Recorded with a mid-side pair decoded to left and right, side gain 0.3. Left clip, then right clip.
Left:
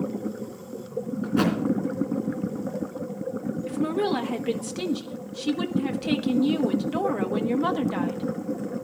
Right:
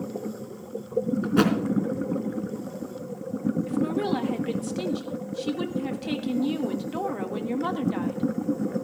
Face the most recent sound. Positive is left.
turn(degrees=35)